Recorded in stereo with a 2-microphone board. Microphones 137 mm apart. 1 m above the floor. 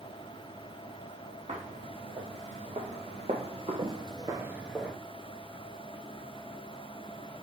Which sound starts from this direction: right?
Footsteps, at 1.5 s.